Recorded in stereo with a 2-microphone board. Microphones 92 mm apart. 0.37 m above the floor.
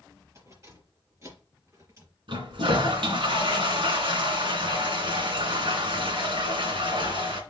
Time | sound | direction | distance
0.3 | keys jangling | 35° right (ahead or behind) | 4.5 m
2.3 | a toilet flushing | 75° right (ahead or behind) | 2 m